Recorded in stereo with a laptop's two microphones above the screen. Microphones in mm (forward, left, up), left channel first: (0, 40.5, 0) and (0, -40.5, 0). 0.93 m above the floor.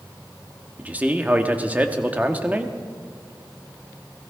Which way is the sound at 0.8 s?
20° right (ahead or behind).